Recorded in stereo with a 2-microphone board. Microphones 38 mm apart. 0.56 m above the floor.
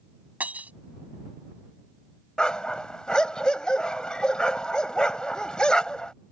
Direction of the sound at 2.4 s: 25° left (ahead or behind).